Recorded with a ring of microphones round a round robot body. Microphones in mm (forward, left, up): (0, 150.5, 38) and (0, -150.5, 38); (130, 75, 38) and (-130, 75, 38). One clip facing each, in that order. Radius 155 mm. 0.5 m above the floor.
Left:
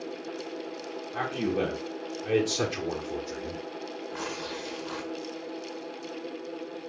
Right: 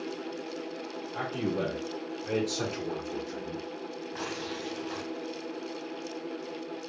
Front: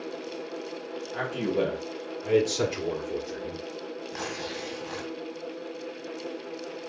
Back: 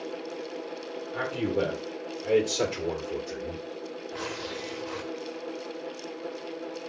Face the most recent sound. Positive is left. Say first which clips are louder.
# even, even
turn(degrees=25)